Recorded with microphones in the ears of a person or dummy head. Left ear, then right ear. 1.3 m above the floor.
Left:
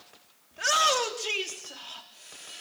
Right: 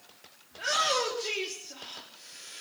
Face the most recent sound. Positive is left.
turn(degrees=20)  # may be behind; listen again after turning